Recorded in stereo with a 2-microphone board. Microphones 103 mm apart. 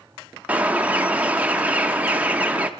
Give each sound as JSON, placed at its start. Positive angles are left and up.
{"t": 0.5, "sound": "a bird", "side_deg": -15, "distance_m": 0.5}